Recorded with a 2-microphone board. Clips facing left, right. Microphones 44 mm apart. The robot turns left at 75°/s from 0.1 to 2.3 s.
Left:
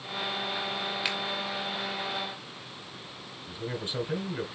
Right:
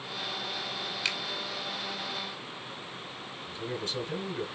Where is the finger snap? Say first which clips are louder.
Right 1 dB; 10° left (ahead or behind), 1.3 m; by 1.2 s 15° left (ahead or behind), 1.3 m.